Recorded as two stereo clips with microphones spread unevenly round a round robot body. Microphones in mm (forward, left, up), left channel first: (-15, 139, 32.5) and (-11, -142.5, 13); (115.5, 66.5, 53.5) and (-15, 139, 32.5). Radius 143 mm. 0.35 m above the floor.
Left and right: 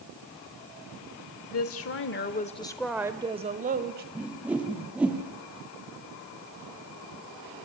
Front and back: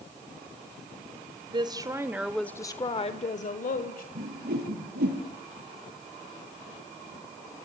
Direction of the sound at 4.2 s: 175° right.